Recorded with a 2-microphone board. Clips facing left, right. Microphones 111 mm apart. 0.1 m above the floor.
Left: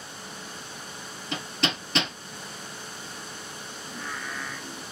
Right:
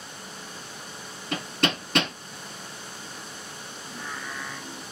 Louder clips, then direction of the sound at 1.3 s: Right 3 dB; 50° right (ahead or behind).